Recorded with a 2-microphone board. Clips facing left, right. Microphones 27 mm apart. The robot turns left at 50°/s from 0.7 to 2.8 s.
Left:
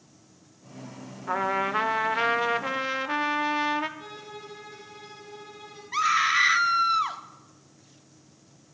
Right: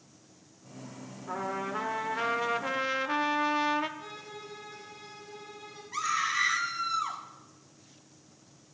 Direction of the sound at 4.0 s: 30° left (ahead or behind).